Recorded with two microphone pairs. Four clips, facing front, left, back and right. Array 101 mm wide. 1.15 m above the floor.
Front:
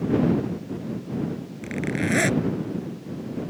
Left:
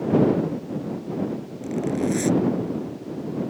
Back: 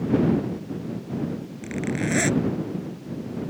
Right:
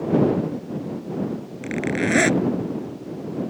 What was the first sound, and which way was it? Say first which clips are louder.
A zipper: even, front 1 dB; 80° right.